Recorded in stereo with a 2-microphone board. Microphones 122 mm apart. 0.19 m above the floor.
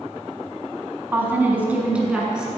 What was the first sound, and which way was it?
A woman speaking, 15° right (ahead or behind).